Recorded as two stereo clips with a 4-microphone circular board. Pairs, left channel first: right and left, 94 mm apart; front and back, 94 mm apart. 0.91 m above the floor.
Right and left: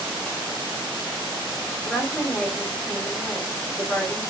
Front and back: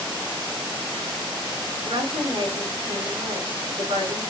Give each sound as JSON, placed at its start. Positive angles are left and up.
{"t": 1.8, "sound": "a woman speaking", "azimuth_deg": -165, "distance_m": 2.5}